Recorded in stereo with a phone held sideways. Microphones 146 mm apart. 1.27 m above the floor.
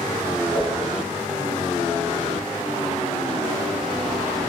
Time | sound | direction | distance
0.5 | a whoosh | 35° left (ahead or behind) | 0.6 m